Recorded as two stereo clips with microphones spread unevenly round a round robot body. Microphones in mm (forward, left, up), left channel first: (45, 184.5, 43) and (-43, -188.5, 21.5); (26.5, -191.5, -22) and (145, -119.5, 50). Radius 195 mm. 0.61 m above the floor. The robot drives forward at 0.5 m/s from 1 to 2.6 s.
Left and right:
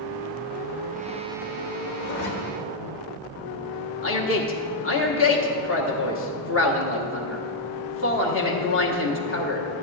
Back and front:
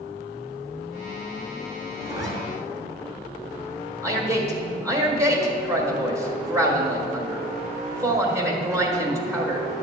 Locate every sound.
2.0 s a zipper: 115° left, 1.3 m; by 2.3 s 120° left, 1.3 m
4.0 s a man speaking: 130° left, 1.3 m